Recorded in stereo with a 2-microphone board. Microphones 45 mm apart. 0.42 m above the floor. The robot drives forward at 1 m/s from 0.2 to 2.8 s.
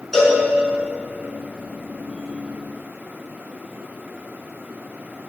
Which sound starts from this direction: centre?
A cowbell, at 0.1 s.